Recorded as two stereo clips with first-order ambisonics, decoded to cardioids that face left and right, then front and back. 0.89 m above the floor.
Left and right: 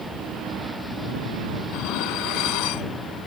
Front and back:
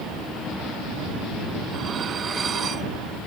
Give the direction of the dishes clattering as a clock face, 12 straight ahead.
8 o'clock.